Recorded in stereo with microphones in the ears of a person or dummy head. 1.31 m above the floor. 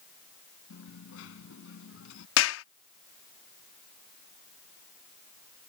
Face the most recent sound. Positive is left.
turn(degrees=70)  # may be behind; listen again after turning